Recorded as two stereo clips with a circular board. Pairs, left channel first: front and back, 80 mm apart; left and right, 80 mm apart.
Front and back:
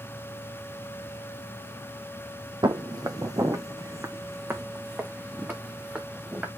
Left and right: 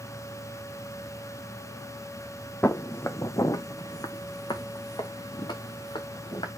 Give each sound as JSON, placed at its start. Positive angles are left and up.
{"t": 2.6, "sound": "footsteps", "azimuth_deg": 155, "distance_m": 1.0}